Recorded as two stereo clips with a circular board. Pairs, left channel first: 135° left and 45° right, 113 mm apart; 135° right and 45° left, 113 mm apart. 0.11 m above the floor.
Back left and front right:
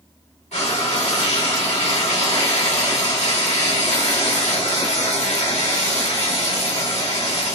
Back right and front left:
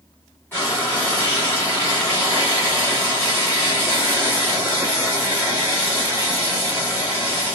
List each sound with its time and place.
0.5 s frying: 155° left, 2.5 m